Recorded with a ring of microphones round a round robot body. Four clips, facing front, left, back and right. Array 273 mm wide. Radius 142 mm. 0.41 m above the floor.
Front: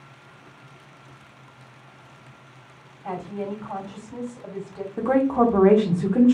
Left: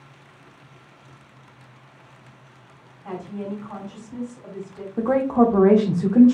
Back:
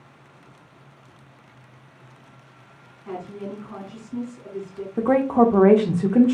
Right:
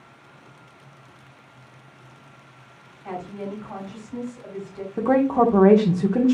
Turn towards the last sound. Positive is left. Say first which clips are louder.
# even, back 2 dB
turn(degrees=-150)